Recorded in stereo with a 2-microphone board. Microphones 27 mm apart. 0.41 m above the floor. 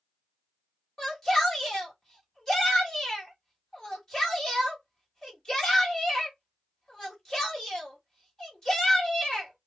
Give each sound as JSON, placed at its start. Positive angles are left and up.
{"t": 1.0, "sound": "a shout", "side_deg": 25, "distance_m": 1.8}